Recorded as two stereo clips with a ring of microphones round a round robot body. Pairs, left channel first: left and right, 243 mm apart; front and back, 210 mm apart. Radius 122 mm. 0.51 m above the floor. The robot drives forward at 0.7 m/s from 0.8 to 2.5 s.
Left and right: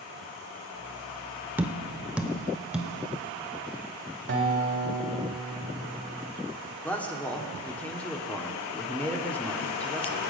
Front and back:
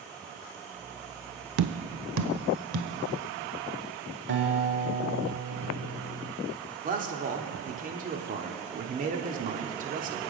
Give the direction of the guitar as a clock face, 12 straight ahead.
5 o'clock.